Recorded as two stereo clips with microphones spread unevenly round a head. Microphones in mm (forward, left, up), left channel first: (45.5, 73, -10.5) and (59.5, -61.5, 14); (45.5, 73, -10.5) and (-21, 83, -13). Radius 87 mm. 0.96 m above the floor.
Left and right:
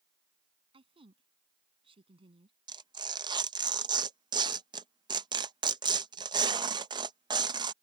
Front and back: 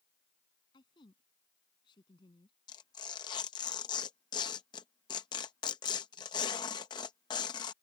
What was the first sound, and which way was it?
A woman speaking, 35° right.